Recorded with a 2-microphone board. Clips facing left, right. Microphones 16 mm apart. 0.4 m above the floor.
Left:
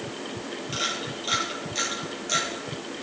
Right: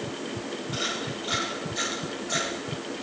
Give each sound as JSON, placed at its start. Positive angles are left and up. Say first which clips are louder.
{"t": 0.7, "sound": "a camera shutter", "louder": "left 2 dB", "side_deg": 65, "distance_m": 5.5}